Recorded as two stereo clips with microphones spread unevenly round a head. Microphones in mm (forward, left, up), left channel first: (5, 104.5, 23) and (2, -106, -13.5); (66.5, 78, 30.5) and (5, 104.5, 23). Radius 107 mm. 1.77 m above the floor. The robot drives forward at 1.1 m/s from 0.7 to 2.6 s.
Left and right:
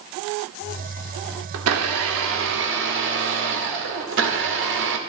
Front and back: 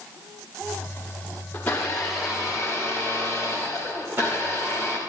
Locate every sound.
1.5 s a blender: 90° right, 2 m; by 5.0 s 125° right, 2.5 m